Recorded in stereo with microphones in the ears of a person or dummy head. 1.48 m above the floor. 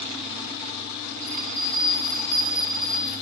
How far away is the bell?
About 5.5 m.